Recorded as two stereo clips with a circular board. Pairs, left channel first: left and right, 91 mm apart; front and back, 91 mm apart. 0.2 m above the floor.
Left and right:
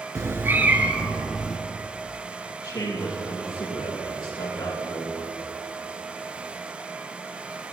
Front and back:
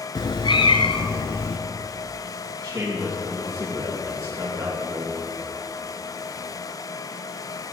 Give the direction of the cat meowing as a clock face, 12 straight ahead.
1 o'clock.